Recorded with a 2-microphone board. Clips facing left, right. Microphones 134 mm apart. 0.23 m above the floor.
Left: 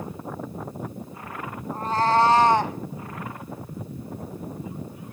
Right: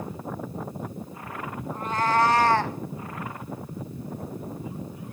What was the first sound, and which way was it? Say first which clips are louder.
A cat meowing: left 3 dB; 35° left (ahead or behind).